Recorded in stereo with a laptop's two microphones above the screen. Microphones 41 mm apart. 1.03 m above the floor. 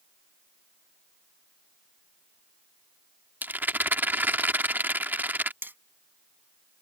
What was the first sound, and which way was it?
A rattle, 50° right (ahead or behind).